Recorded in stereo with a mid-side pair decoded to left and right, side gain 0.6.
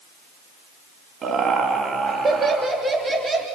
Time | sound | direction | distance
1.2 | laughter | 45° right | 2.5 m